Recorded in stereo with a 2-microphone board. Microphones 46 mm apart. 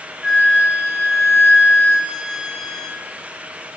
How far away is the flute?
About 0.6 m.